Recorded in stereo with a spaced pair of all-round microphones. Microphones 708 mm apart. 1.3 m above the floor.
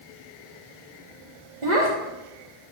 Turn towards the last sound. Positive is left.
turn(degrees=-75)  # may be behind; listen again after turning